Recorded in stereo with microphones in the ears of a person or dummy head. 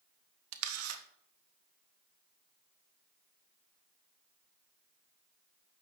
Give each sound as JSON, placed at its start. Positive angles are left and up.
{"t": 0.5, "sound": "a camera shutter", "side_deg": -85, "distance_m": 1.2}